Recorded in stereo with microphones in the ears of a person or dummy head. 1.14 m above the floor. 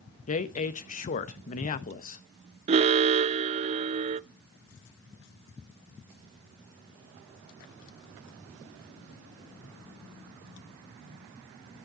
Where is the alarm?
35° right (ahead or behind), 0.5 m.